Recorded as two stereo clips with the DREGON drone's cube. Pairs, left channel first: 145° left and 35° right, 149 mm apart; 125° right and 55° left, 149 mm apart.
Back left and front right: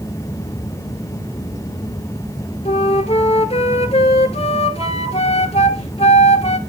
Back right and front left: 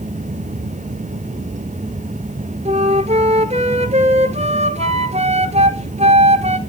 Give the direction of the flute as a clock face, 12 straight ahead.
9 o'clock.